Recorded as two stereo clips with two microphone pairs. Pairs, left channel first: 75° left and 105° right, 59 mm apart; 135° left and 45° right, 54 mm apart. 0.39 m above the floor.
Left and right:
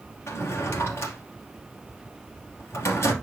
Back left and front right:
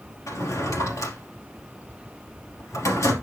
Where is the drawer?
120° left, 2.5 m.